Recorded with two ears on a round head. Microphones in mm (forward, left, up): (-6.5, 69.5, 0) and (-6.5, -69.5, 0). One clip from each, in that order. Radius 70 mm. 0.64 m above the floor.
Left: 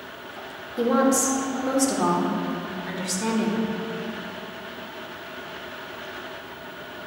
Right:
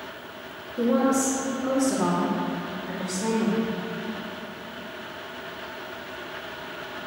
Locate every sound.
0.8 s a woman speaking: 55° left (ahead or behind), 1.4 m